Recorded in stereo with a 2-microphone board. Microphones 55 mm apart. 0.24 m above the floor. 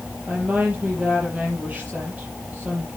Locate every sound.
0.3 s a woman speaking: 25° right (ahead or behind), 6 m